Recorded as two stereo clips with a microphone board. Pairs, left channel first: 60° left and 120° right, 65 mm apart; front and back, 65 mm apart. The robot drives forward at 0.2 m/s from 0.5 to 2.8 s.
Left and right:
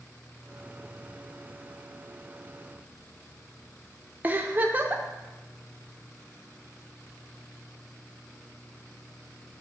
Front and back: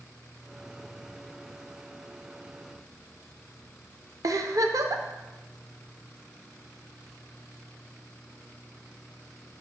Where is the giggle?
Straight behind, 0.7 m.